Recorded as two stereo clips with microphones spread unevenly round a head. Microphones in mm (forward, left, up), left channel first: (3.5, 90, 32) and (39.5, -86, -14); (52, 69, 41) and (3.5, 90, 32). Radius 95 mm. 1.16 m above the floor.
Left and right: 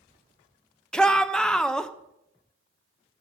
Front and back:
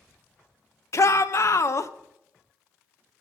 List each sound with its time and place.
0.9 s a shout: 10° left, 0.9 m